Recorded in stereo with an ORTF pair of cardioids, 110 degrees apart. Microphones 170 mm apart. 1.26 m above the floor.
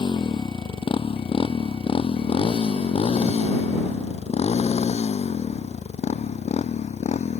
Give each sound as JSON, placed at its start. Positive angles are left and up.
{"t": 0.0, "sound": "a motorcycle", "azimuth_deg": 25}